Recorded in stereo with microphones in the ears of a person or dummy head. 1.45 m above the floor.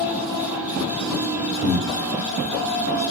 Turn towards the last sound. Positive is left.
turn(degrees=35)  # may be behind; listen again after turning